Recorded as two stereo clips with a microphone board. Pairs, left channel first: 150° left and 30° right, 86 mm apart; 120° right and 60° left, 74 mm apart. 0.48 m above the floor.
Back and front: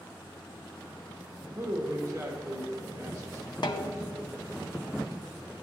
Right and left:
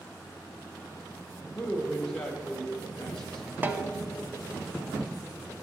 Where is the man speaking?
45° right, 1.4 m.